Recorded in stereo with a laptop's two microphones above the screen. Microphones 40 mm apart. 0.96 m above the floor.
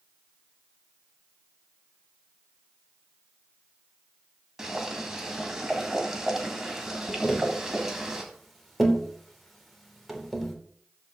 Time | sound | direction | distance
4.6 | boiling | 10° right (ahead or behind) | 2 m
7.2 | tapping | centre (ahead or behind) | 3.5 m